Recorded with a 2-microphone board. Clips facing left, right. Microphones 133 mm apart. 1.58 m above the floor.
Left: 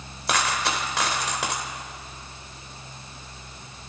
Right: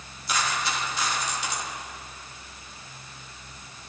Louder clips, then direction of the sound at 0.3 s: Left 3 dB; 70° left (ahead or behind).